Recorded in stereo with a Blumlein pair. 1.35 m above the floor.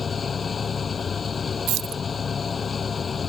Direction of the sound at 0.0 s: 15° left.